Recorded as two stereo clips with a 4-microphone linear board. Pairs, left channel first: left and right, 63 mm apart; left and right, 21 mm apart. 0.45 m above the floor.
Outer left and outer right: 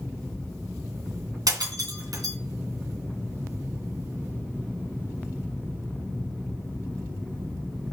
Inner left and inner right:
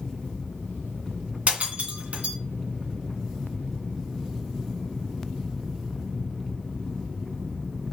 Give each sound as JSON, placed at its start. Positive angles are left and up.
{"t": 1.5, "sound": "breaking glass", "side_deg": -80, "distance_m": 2.5}